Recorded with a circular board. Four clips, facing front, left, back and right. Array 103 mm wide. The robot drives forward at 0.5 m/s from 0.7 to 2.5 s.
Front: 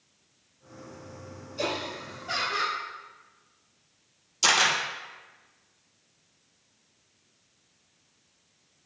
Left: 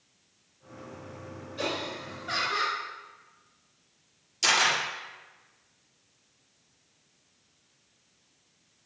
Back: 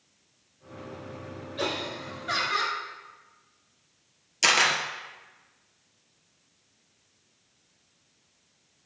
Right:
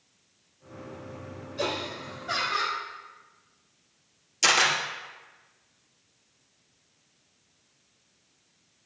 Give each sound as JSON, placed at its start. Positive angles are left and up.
{"t": 1.6, "sound": "laughter", "azimuth_deg": 165, "distance_m": 2.0}
{"t": 4.4, "sound": "a camera shutter", "azimuth_deg": -160, "distance_m": 2.0}